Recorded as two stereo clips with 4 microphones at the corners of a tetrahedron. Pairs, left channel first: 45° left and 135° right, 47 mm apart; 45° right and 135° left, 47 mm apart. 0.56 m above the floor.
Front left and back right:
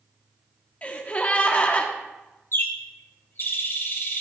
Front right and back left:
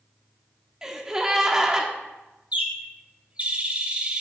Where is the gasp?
70° left, 1.2 m.